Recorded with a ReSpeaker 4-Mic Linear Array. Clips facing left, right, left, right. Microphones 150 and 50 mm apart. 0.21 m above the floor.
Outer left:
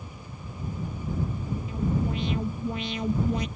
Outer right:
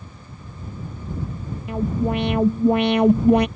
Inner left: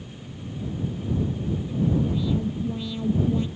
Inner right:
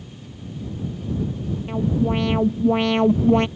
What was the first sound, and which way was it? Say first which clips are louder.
An alarm: outer right 7 dB, inner right 4 dB; 65° right (ahead or behind).